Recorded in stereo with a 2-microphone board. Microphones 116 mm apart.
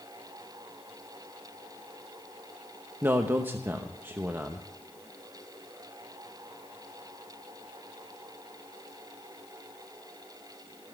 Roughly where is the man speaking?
Centre.